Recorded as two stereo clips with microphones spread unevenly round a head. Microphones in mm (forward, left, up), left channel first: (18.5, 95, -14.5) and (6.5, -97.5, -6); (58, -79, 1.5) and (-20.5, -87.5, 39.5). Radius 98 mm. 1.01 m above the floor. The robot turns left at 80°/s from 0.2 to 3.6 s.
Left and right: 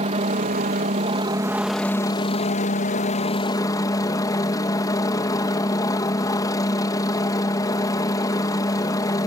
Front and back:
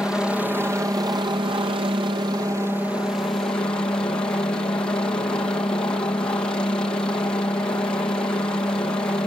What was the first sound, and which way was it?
A helicopter, 60° right.